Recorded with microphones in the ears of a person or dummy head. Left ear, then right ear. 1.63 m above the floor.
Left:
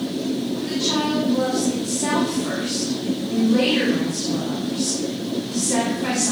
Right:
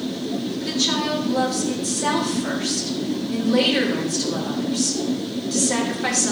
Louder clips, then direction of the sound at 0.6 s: Right 1 dB; 75° right (ahead or behind).